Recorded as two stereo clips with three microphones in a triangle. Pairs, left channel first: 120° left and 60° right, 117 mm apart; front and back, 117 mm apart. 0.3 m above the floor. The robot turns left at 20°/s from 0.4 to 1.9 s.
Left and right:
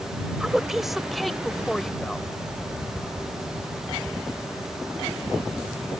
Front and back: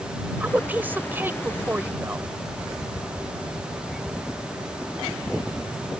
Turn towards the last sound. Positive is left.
turn(degrees=-165)